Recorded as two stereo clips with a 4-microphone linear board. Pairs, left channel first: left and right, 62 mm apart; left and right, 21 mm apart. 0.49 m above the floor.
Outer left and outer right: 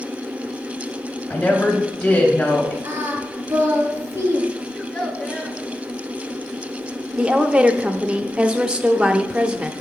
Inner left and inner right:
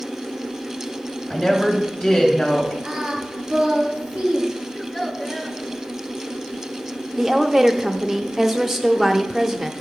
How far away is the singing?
About 3 m.